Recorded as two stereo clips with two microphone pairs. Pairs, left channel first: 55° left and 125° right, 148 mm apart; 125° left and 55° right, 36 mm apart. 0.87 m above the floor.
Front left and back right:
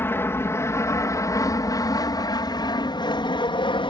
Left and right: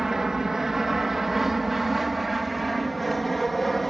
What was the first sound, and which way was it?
An aircraft, straight ahead.